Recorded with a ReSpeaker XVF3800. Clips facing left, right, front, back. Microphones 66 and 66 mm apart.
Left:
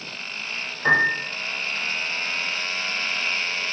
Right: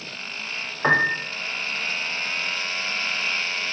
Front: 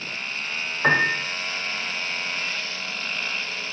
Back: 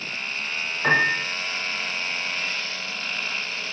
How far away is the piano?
About 1.9 m.